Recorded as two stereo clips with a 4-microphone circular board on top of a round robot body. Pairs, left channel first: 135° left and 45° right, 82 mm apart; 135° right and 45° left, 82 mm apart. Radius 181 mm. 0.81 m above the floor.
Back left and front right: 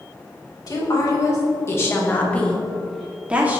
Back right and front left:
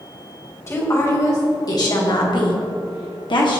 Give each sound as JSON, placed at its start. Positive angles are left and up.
{"t": 0.7, "sound": "a woman speaking", "azimuth_deg": 170, "distance_m": 3.0}